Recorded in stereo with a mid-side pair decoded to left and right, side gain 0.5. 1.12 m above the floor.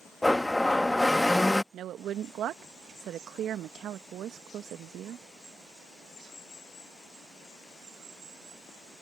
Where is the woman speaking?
65° right.